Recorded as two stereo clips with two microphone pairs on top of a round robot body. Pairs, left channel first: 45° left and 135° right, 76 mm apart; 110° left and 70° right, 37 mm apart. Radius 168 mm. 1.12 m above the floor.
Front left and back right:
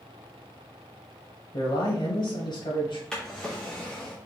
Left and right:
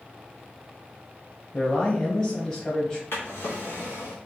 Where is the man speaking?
35° left, 1.3 m.